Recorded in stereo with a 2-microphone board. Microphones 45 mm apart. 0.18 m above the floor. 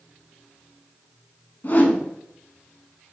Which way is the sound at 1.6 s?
45° left (ahead or behind).